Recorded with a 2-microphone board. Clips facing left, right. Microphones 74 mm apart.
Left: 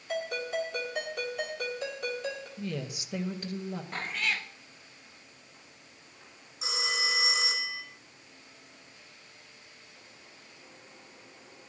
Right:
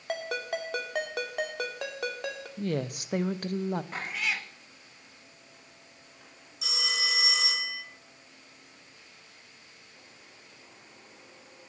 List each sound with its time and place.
0.1 s a ringtone: 75° right (ahead or behind), 2 m
2.6 s a woman speaking: 55° right (ahead or behind), 0.8 m
3.9 s a cat meowing: 5° right (ahead or behind), 0.8 m
6.6 s a phone ringing: 25° left (ahead or behind), 3 m